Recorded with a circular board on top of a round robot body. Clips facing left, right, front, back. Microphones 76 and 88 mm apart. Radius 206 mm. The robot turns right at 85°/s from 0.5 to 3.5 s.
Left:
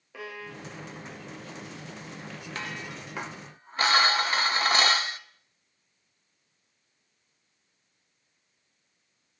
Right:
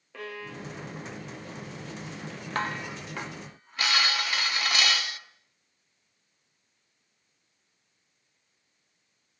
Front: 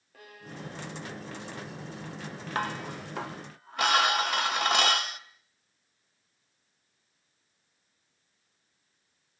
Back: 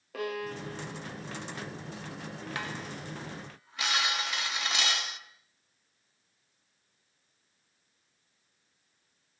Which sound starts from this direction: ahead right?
Dishes clattering, at 2.5 s.